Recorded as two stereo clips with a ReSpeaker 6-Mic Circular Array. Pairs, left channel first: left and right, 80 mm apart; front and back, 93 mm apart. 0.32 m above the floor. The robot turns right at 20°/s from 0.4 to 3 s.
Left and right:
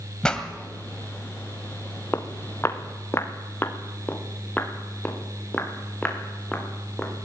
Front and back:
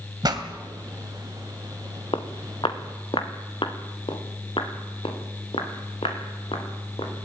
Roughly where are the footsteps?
Ahead left.